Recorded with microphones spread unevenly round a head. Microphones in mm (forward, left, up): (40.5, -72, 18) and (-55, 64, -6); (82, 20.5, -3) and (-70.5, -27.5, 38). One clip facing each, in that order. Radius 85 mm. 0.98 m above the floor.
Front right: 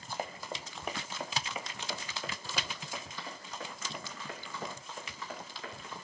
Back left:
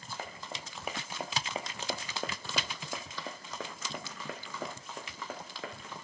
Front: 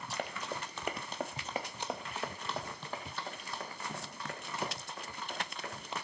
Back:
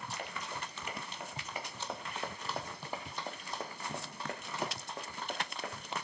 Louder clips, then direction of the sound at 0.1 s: Front right 4 dB, front 6 dB; straight ahead.